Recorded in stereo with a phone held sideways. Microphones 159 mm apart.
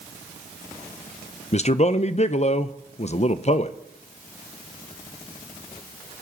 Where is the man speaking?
45° left (ahead or behind), 0.5 m.